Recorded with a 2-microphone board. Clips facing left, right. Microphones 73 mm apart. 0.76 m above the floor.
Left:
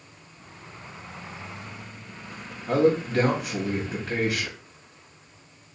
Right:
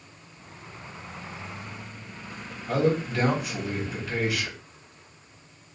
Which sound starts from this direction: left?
A man speaking, at 2.7 s.